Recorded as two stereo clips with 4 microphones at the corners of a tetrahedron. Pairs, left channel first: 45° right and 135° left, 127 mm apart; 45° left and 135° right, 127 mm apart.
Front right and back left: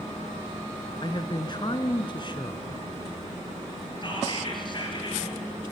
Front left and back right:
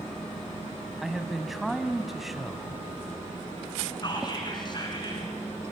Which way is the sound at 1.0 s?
45° right.